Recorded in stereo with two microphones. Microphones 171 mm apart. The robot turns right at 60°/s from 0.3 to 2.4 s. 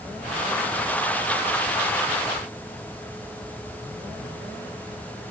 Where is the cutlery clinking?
No cutlery clinking in this recording.